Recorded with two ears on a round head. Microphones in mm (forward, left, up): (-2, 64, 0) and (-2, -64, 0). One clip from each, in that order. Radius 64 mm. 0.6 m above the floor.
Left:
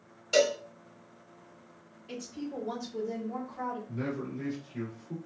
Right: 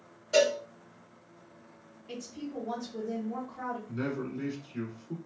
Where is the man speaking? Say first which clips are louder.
Right 1 dB; 35° right (ahead or behind), 1.4 m.